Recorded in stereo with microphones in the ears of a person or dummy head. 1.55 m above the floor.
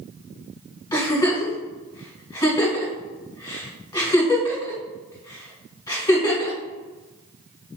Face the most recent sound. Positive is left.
turn(degrees=15)  # may be behind; listen again after turning